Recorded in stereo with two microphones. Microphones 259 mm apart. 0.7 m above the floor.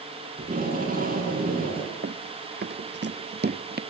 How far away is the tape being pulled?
About 8 m.